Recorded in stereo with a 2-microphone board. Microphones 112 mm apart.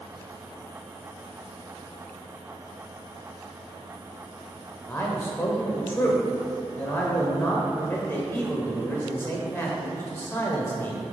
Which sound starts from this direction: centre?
A man speaking, at 4.9 s.